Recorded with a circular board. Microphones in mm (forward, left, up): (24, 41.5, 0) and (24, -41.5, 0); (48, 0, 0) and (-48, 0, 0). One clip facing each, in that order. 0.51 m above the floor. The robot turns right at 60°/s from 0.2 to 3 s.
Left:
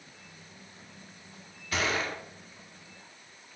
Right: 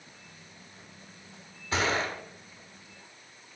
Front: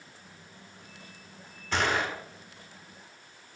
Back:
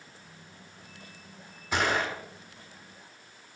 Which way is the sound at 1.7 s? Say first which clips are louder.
Right 2 dB, even; 110° right.